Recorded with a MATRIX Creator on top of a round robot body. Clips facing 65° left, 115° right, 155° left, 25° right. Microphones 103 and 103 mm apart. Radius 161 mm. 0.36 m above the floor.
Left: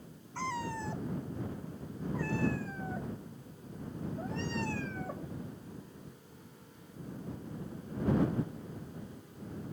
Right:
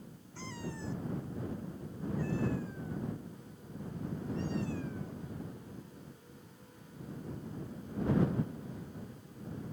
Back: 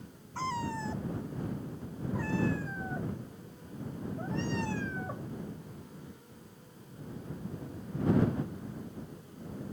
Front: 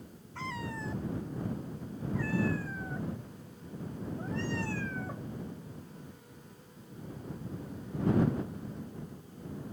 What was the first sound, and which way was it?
A cat meowing, 100° left.